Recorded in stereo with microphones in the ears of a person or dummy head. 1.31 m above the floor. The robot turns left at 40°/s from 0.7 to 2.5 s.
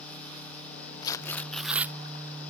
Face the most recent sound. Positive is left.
turn(degrees=-30)